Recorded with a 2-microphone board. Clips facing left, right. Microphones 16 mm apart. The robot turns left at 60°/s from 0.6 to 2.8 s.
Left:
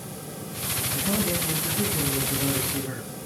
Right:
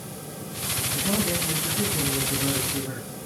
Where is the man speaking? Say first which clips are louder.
Right 1 dB; 135° right, 6.5 m; by 3.1 s 110° left, 6.5 m.